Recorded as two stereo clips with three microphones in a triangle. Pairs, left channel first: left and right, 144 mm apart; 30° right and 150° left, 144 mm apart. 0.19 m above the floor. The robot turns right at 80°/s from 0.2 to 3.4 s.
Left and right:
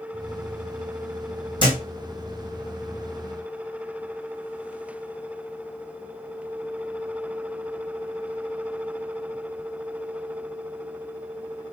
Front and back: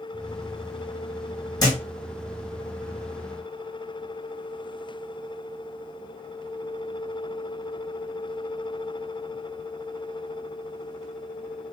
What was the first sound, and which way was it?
A thud, 30° left.